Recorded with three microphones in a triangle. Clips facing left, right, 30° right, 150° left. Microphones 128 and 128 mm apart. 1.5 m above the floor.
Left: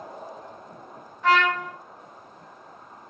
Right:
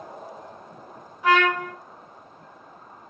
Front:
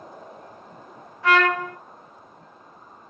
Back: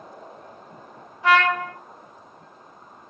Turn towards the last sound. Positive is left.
turn(degrees=-160)